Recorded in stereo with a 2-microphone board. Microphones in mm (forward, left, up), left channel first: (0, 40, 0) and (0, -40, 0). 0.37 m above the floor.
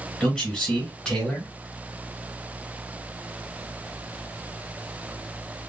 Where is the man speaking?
Centre (ahead or behind), 2 m.